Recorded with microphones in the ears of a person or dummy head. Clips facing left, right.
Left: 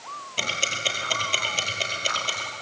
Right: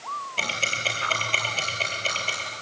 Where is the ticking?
15° left (ahead or behind), 4 m.